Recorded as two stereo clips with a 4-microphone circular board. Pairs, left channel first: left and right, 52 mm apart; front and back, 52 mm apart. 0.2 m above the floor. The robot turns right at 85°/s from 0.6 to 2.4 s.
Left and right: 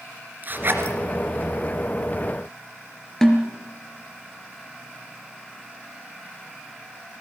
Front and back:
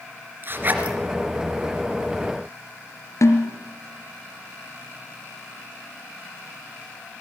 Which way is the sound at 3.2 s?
10° left.